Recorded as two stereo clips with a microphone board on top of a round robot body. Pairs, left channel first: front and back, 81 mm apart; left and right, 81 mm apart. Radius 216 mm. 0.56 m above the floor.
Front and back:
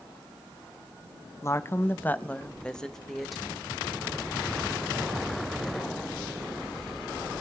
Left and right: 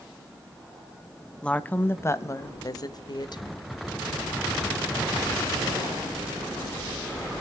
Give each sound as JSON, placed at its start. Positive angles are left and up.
{"t": 1.4, "sound": "a woman speaking", "azimuth_deg": 20, "distance_m": 1.1}